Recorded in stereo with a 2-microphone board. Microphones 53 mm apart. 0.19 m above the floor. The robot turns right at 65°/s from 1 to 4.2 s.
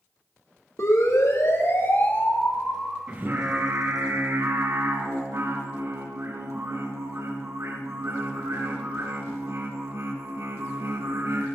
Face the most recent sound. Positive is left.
turn(degrees=-80)